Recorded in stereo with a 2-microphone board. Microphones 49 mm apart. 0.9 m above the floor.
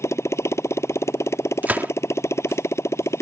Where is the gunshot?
40° right (ahead or behind).